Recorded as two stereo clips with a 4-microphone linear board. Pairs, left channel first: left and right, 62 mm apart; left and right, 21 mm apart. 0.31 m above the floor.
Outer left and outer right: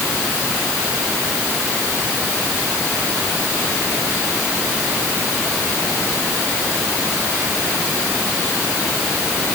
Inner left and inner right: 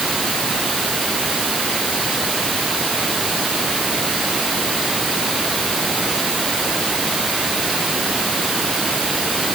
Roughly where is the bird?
I don't hear a bird.